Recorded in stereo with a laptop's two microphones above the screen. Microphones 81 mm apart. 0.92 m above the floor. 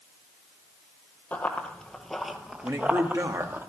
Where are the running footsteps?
15° left (ahead or behind), 1.1 m; by 3.6 s 25° right (ahead or behind), 1.2 m.